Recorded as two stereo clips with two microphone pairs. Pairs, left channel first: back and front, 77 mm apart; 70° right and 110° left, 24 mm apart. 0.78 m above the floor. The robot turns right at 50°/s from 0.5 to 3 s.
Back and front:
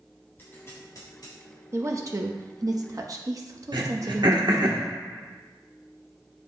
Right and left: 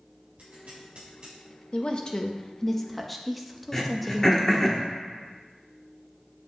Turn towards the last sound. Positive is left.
turn(degrees=0)